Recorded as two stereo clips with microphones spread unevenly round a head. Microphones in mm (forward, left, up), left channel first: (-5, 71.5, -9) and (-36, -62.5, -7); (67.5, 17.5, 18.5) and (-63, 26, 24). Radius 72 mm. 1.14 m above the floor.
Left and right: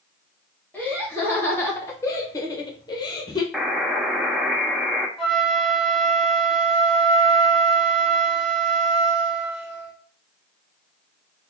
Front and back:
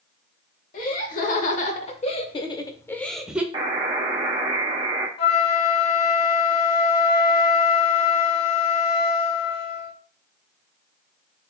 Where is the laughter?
Straight ahead, 1.4 m; by 3.4 s 105° left, 0.6 m.